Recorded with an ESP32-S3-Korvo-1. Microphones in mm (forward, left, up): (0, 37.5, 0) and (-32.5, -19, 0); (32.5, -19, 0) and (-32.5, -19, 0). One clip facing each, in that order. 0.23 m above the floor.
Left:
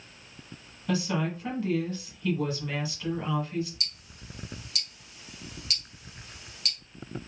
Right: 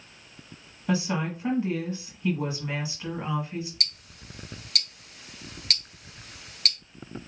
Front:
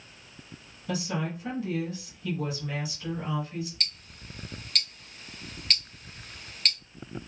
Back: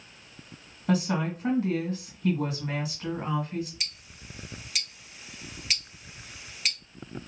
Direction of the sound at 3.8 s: 95° right.